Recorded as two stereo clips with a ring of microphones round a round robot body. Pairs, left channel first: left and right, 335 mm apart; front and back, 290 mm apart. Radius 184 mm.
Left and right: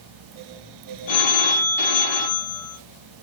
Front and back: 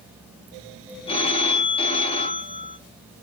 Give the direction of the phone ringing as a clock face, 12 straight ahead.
10 o'clock.